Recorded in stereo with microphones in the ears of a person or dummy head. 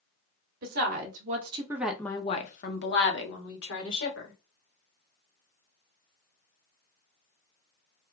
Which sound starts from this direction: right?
A woman speaking, at 0.6 s.